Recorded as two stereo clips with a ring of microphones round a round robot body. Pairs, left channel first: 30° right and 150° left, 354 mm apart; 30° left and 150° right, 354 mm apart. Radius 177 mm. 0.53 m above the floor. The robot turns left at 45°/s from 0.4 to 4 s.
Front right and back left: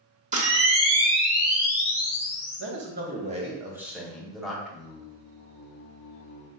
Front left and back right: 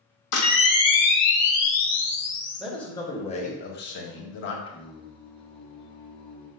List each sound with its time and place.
0.3 s a camera shutter: 80° left, 0.9 m; by 2.6 s 20° right, 0.9 m
2.6 s a man speaking: 125° left, 0.8 m; by 4.5 s 60° left, 0.8 m
4.7 s singing: 30° right, 0.6 m